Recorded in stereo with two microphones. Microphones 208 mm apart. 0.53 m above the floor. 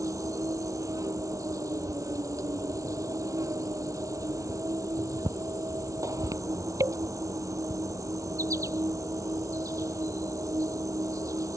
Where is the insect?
15° right (ahead or behind).